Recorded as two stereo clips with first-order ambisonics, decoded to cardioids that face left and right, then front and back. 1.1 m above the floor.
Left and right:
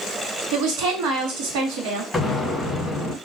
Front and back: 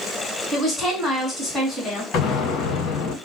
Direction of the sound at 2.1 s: 5° left.